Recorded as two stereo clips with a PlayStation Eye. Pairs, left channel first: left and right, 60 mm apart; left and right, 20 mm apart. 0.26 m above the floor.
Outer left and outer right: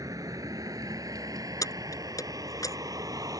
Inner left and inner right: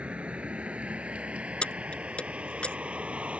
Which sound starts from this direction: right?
A vehicle, at 0.0 s.